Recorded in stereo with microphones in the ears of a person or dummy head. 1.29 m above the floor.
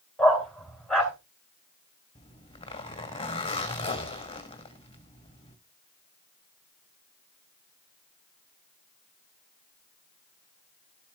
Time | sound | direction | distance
0.2 | a dog barking | centre (ahead or behind) | 3 m
2.1 | a zipper | 25° left (ahead or behind) | 1.7 m